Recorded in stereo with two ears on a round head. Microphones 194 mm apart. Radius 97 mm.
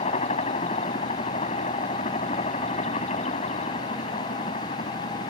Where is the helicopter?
30° left (ahead or behind).